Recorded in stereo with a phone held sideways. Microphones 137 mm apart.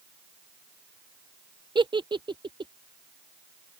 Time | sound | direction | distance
1.8 | a giggle | 35° right (ahead or behind) | ?